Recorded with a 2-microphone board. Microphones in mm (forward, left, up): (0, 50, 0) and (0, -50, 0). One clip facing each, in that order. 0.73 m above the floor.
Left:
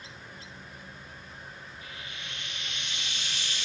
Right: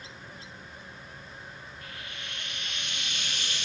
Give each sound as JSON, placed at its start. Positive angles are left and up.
{"t": 1.8, "sound": "frying", "side_deg": -55, "distance_m": 5.5}